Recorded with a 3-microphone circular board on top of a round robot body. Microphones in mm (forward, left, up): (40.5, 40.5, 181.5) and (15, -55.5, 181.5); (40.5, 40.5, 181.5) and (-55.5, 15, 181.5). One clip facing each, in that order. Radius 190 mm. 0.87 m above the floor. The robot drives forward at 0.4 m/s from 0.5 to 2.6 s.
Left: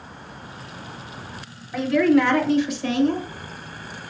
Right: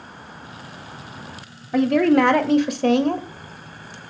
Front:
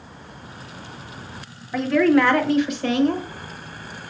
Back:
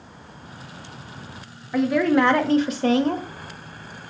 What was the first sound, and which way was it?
A woman speaking, 80° right.